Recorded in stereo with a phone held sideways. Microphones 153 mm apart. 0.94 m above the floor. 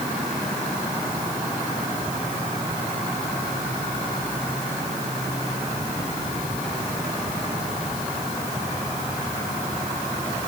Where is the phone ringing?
No phone ringing in this recording.